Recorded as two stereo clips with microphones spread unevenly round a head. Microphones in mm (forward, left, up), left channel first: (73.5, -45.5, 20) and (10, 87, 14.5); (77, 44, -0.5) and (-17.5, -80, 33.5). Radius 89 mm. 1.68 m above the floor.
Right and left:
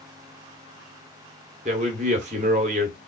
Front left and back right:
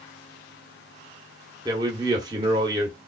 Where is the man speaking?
170° left, 1.1 m.